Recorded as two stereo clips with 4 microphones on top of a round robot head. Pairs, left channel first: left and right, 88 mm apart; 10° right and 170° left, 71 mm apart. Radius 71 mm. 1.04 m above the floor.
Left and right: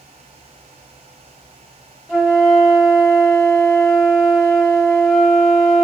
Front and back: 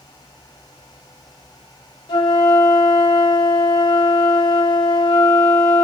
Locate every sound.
2.1 s a flute: 5° left, 1.3 m